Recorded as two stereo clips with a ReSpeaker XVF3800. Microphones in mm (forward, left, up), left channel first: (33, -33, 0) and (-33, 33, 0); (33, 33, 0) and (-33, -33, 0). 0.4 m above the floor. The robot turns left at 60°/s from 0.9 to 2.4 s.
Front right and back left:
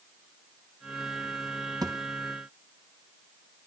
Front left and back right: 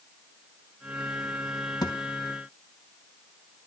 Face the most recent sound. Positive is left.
turn(degrees=55)